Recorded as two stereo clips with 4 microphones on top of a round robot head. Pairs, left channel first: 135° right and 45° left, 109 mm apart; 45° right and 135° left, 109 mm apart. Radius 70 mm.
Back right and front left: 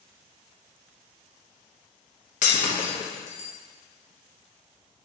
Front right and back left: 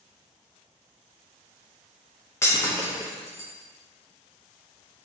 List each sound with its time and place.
2.4 s breaking glass: 115° right, 0.7 m